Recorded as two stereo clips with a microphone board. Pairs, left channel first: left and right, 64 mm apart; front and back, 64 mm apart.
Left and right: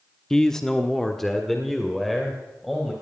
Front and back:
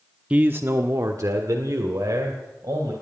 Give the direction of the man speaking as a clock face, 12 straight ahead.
7 o'clock.